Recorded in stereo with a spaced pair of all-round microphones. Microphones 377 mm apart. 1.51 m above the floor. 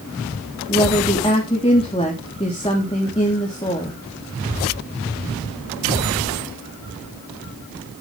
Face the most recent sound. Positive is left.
turn(degrees=15)  # may be behind; listen again after turning